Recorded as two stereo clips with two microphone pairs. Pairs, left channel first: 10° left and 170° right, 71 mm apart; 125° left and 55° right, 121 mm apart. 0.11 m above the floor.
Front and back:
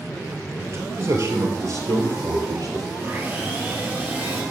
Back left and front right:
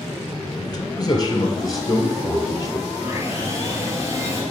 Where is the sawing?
115° right, 2.5 m.